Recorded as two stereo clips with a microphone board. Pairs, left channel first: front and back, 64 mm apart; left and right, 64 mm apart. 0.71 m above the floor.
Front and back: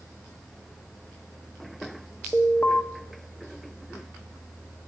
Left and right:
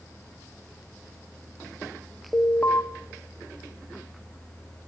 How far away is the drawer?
I don't hear a drawer.